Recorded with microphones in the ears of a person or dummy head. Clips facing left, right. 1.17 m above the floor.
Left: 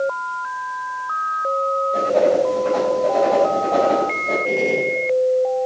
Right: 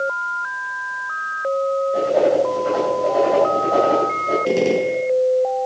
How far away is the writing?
About 4.5 m.